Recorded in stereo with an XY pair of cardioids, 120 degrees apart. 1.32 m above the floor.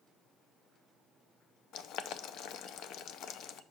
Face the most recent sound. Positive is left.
turn(degrees=70)